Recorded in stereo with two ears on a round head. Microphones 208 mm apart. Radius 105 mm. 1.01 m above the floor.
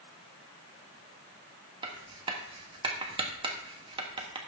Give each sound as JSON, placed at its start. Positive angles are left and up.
{"t": 1.8, "sound": "writing", "side_deg": -20, "distance_m": 1.3}